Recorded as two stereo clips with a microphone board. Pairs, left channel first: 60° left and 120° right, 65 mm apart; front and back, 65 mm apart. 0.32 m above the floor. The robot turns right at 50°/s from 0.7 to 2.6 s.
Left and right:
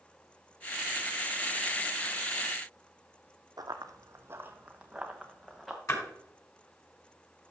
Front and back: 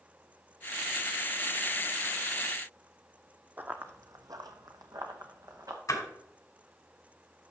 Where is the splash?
25° left, 2.5 m.